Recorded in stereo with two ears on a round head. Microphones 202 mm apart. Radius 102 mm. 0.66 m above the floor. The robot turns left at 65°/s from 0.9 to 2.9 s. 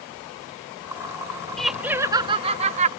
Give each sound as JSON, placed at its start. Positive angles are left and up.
{"t": 1.6, "sound": "laughter", "azimuth_deg": 5}